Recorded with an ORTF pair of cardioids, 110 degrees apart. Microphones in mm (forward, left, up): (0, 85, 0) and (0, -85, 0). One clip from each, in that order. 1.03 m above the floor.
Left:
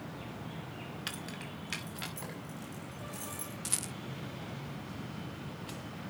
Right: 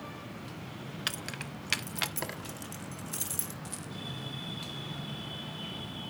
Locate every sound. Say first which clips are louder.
1.1 s keys jangling: right 7 dB; 35° right, 1.1 m; by 3.5 s 75° right, 2.5 m
3.6 s a rattle: left 4 dB; 50° left, 0.6 m